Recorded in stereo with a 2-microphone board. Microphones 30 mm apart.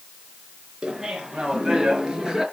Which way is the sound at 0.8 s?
25° right (ahead or behind).